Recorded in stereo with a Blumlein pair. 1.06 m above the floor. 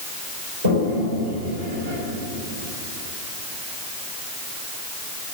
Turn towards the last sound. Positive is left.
turn(degrees=-70)